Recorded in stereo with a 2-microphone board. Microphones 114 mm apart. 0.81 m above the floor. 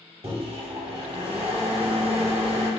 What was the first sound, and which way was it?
A microwave, 55° right (ahead or behind).